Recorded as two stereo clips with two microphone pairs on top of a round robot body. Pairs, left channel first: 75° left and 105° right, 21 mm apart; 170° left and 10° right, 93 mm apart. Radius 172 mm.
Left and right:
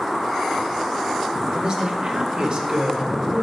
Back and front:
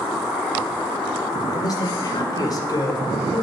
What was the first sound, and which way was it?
A man speaking, 145° right.